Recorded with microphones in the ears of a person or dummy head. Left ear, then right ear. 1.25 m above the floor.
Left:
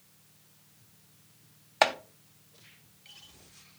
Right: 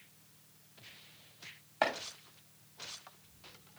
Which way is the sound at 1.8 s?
45° left (ahead or behind).